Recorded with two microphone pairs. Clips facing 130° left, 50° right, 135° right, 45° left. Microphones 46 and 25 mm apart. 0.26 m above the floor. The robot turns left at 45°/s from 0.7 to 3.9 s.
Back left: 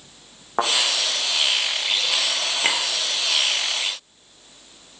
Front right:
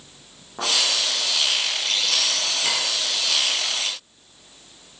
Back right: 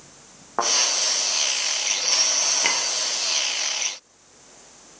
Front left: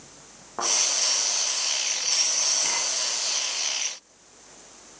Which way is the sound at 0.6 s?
160° left.